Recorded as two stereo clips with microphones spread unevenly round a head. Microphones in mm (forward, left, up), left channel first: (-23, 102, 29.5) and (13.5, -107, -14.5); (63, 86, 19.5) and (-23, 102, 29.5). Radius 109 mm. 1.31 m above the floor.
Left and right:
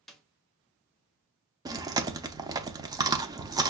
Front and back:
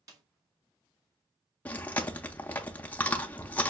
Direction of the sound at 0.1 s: 175° left.